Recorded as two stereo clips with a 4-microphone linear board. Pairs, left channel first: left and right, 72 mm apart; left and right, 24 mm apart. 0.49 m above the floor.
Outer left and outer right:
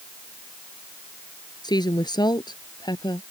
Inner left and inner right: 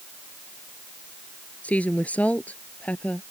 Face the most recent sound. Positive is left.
turn(degrees=75)  # may be behind; listen again after turning